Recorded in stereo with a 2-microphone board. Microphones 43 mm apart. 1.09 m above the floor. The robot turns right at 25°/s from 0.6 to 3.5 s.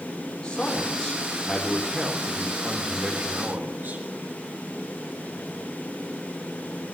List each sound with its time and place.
0.4 s a man speaking: 165° left, 3.5 m; by 4.0 s 125° right, 3.5 m